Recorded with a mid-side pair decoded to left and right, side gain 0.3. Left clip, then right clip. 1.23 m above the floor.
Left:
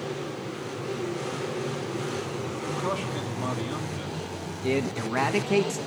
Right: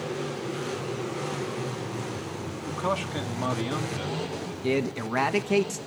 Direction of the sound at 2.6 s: 45° right.